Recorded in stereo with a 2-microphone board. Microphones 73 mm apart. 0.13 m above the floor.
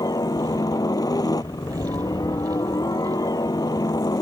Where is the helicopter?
60° left (ahead or behind).